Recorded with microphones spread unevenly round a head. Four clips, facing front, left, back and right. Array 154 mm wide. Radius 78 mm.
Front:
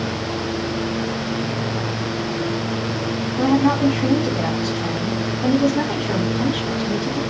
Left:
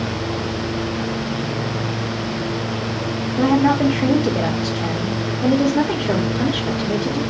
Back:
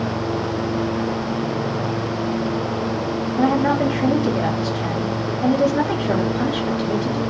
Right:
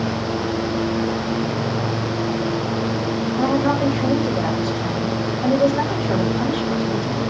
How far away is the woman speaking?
About 1.6 m.